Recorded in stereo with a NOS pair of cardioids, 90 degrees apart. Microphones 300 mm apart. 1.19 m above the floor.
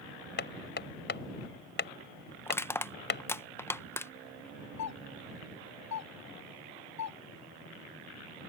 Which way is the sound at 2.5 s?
10° left.